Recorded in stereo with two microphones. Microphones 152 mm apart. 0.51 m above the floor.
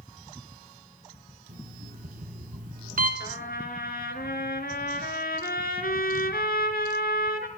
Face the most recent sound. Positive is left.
turn(degrees=85)